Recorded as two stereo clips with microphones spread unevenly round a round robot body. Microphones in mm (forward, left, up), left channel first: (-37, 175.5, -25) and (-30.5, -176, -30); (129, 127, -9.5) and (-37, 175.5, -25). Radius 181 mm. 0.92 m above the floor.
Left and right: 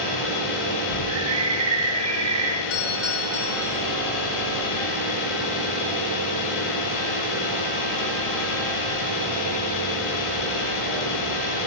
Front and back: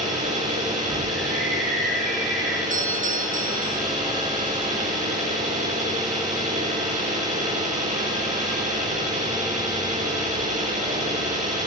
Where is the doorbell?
135° left, 3.5 m.